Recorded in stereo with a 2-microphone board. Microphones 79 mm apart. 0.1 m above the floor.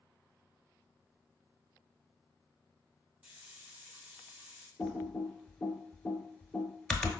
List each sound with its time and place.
3.2 s a hiss: 15° right (ahead or behind), 1.4 m
4.8 s typing on a keyboard: 10° left (ahead or behind), 0.8 m